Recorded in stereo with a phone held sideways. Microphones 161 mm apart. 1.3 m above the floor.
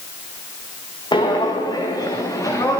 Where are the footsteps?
25° left (ahead or behind), 3.5 m; by 2.8 s 20° left (ahead or behind), 4.5 m.